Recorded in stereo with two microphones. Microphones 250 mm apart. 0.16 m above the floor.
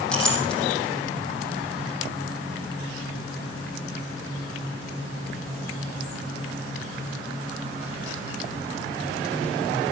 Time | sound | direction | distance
0.1 | a clink | 5° left (ahead or behind) | 5 m